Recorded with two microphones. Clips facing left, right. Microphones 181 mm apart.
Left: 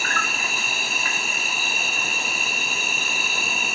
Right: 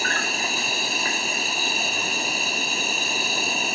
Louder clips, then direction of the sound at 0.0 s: Right 2 dB; 35° right (ahead or behind).